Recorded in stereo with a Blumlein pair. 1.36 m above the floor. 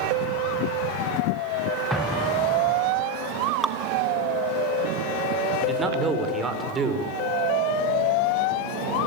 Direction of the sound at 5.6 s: 15° right.